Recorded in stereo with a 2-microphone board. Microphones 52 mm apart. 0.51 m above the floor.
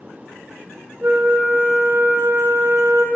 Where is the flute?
55° right (ahead or behind), 0.6 m.